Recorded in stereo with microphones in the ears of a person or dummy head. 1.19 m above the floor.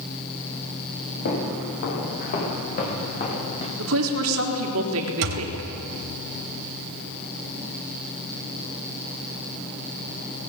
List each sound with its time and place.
1.2 s footsteps: 45° left (ahead or behind), 8 m; by 3.7 s 30° left (ahead or behind), 7.5 m
3.8 s a woman speaking: 65° right (ahead or behind), 3.5 m
5.2 s a thud: 60° right (ahead or behind), 2.5 m